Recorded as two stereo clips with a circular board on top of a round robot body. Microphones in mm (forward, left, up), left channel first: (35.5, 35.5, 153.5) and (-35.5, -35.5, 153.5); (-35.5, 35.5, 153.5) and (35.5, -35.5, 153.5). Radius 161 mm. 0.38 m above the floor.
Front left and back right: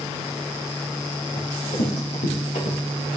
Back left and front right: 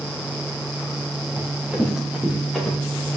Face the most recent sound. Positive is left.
turn(degrees=45)